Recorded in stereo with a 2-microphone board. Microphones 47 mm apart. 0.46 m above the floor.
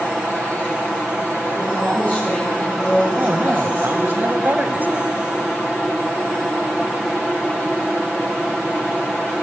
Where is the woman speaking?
30° left (ahead or behind), 8 m.